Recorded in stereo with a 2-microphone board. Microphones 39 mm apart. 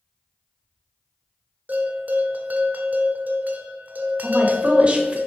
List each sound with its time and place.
1.7 s a bell: 50° right (ahead or behind), 1.3 m
4.2 s a woman speaking: 30° right (ahead or behind), 1.4 m